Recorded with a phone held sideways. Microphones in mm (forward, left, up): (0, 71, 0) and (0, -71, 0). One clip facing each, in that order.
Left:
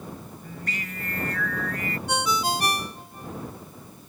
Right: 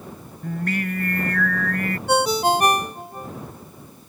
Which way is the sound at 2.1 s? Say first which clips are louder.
Right 8 dB; 55° right (ahead or behind).